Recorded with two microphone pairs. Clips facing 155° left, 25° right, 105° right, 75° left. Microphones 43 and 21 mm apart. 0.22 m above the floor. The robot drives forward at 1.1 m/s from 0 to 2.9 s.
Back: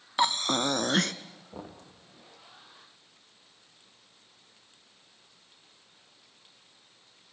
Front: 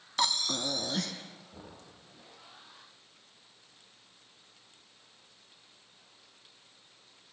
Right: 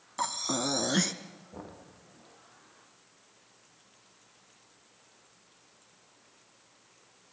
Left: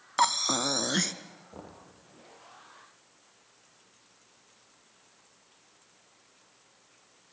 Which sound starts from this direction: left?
Breathing, at 0.2 s.